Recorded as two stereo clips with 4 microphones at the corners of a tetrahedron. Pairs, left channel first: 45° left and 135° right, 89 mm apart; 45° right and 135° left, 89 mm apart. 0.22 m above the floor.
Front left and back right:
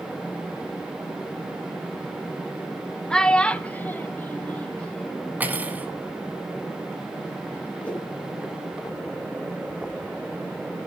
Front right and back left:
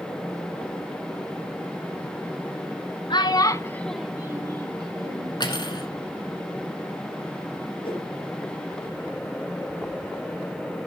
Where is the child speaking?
40° right, 1.0 m; by 5.4 s 125° left, 1.5 m.